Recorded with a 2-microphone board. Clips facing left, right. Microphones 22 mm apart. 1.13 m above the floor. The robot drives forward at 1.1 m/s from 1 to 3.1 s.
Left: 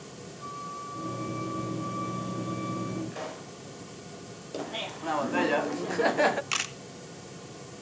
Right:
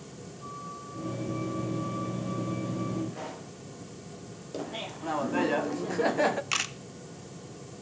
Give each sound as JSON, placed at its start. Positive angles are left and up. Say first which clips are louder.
{"t": 0.4, "sound": "a flute", "louder": "left 3 dB", "side_deg": 35, "distance_m": 5.0}
{"t": 3.1, "sound": "a pop", "louder": "left 1 dB", "side_deg": 70, "distance_m": 6.5}
{"t": 4.5, "sound": "laughter", "louder": "left 2 dB", "side_deg": 15, "distance_m": 0.5}
{"t": 6.5, "sound": "a camera shutter", "louder": "right 1 dB", "side_deg": 5, "distance_m": 0.7}